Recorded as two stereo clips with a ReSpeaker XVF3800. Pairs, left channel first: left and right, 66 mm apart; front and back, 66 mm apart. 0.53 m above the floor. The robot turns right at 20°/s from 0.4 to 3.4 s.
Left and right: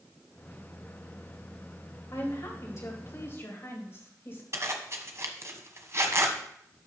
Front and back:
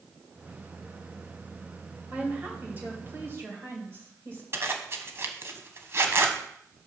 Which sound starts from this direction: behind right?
A zipper, at 4.5 s.